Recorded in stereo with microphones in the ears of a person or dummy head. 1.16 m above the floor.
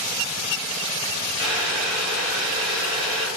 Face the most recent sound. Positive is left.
turn(degrees=-25)  # may be behind; listen again after turning